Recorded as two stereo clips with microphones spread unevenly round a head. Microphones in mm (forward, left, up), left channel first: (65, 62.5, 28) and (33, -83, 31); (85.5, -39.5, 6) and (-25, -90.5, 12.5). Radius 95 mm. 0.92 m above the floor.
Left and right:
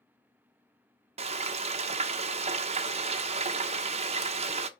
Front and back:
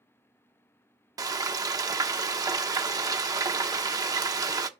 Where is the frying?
110° right, 0.9 m.